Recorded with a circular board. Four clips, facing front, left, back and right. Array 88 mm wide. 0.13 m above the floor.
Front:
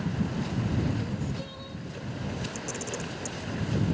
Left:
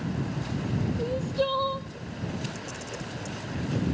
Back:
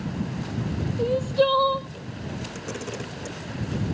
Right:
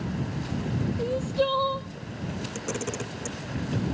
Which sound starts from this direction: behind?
Crying, at 1.0 s.